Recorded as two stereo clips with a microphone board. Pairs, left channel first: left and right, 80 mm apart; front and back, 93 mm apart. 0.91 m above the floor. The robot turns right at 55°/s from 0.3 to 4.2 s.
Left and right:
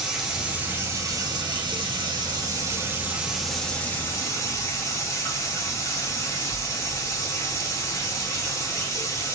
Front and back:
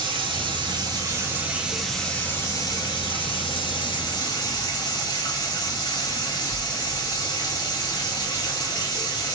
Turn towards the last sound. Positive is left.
turn(degrees=40)